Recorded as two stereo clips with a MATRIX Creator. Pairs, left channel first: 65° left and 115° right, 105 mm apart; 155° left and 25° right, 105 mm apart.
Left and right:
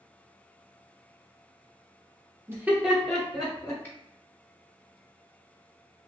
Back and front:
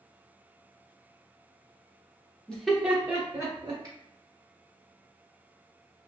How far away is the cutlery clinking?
No cutlery clinking in this recording.